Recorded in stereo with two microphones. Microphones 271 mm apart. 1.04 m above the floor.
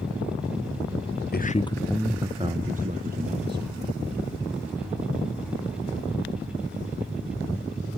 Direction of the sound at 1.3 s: 35° left (ahead or behind).